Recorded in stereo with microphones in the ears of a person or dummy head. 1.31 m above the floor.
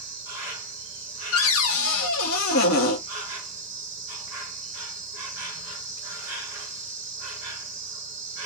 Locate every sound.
0.0 s an insect: 15° right (ahead or behind), 0.9 m
1.3 s a cupboard door: 70° left (ahead or behind), 0.9 m